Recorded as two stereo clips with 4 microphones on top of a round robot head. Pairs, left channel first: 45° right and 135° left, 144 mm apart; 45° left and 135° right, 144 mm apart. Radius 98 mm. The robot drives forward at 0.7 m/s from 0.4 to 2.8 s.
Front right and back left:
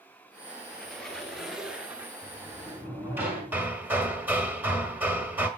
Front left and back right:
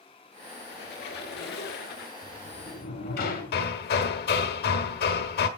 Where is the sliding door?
55° left, 5 m.